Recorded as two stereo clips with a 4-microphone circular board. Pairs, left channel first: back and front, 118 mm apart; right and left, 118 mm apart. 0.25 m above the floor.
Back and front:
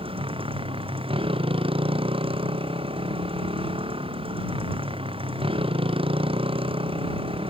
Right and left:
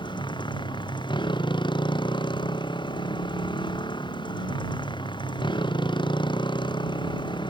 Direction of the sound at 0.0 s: 40° right.